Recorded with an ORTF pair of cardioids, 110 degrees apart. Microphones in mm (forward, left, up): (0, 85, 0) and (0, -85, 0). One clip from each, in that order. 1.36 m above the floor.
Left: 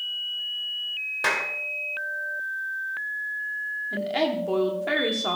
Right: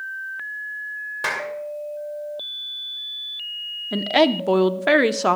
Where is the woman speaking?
55° right, 0.8 m.